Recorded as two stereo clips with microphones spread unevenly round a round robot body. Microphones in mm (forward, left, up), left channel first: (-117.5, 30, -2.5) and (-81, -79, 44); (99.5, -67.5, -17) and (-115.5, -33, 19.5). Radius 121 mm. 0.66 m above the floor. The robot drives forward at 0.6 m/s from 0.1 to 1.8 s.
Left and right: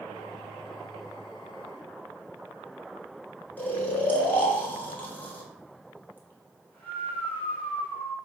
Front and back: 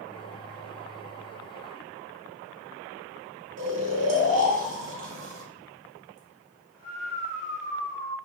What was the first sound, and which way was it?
Snoring, 150° left.